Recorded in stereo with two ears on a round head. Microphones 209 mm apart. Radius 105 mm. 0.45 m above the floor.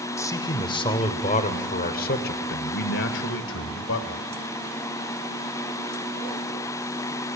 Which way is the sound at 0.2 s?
15° left (ahead or behind).